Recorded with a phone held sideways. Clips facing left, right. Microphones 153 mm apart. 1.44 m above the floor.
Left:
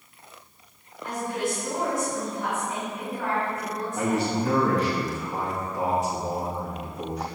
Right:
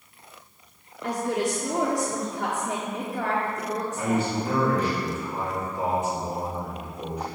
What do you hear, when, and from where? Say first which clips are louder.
1.0 s a woman speaking: right 3 dB; 70° right (ahead or behind), 1.0 m
4.0 s a man speaking: left 2 dB; 85° left, 2 m